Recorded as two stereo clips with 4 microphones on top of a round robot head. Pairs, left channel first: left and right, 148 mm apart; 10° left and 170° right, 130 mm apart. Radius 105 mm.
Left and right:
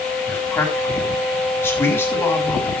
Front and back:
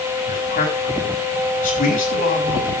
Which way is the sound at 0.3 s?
20° left.